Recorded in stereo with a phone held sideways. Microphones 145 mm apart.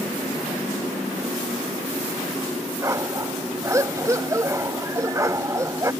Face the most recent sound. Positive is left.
turn(degrees=-20)  # may be behind; listen again after turning